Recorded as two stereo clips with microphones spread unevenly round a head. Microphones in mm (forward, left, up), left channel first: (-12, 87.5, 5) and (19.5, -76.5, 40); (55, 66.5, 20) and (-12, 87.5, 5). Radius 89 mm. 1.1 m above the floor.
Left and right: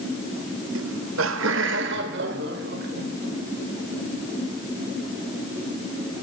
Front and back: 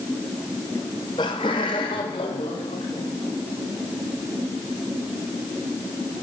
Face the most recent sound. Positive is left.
turn(degrees=-50)